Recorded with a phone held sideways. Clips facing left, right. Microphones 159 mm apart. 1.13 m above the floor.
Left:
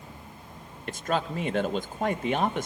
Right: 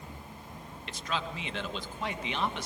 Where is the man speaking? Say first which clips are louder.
Left 7 dB; 55° left (ahead or behind), 1.6 m.